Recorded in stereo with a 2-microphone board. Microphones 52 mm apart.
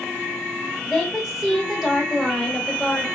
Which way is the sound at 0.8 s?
Centre (ahead or behind).